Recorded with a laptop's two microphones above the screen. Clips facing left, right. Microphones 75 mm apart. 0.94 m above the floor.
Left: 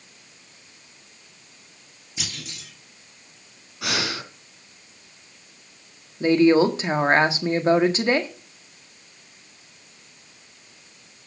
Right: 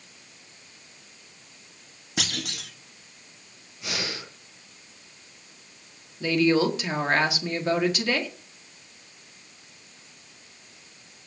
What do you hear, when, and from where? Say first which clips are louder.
2.2 s a clunk: right 5 dB; 70° right (ahead or behind), 2.5 m
3.8 s breathing: left 6 dB; 75° left (ahead or behind), 2.5 m
6.2 s a woman speaking: left 5 dB; 30° left (ahead or behind), 1.6 m